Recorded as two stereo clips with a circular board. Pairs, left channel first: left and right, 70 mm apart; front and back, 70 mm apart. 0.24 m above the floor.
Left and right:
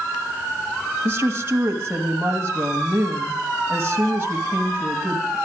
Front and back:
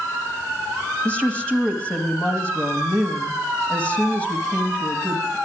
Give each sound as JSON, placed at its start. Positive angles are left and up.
{"t": 1.1, "sound": "a woman speaking", "azimuth_deg": -65, "distance_m": 1.4}